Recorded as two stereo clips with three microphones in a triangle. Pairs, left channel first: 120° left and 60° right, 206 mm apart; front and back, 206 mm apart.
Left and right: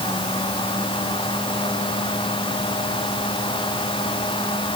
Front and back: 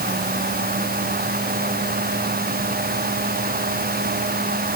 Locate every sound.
Only background noise.